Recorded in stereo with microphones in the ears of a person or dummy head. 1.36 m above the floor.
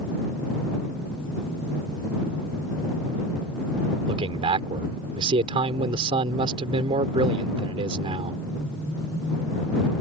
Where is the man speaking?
30° right (ahead or behind).